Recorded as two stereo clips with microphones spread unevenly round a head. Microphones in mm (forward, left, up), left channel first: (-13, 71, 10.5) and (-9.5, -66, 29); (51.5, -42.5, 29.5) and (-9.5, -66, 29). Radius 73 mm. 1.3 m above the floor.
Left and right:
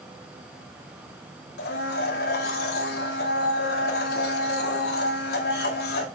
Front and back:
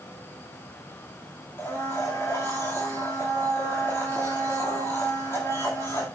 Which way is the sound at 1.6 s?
90° left.